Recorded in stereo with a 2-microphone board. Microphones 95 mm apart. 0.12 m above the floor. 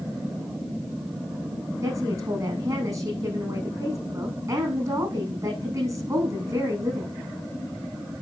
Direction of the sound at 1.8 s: 40° right (ahead or behind).